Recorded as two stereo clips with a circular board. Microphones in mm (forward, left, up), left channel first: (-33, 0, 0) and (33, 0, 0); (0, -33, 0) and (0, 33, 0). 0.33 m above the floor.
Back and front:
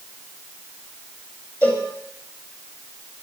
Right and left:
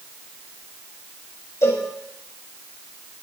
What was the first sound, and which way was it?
A cowbell, 125° right.